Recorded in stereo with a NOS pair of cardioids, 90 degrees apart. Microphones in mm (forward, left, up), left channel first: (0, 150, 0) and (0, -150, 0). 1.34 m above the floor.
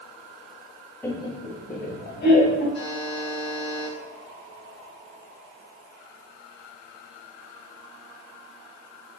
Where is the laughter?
10° left, 0.7 m; by 2.6 s 40° left, 1.6 m.